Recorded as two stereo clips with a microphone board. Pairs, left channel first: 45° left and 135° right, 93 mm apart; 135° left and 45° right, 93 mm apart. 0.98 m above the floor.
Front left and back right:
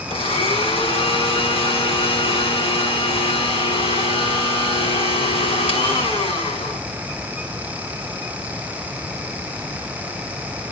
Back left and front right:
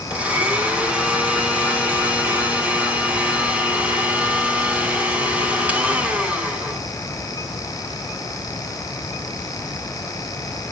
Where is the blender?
30° left, 2.5 m.